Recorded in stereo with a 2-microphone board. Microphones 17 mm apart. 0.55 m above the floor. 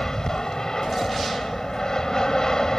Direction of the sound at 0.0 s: 45° left (ahead or behind).